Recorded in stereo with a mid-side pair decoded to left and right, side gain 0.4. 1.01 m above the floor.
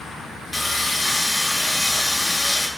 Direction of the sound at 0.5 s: 15° left.